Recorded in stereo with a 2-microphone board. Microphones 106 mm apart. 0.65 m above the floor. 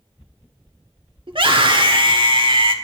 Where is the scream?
50° right (ahead or behind), 1.5 m.